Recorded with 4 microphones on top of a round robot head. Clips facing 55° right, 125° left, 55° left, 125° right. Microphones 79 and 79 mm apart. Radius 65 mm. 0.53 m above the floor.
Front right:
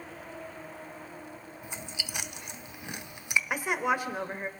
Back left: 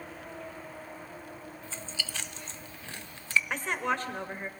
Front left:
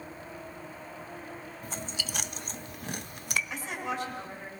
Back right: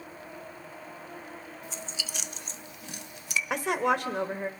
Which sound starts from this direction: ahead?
Chewing, at 1.6 s.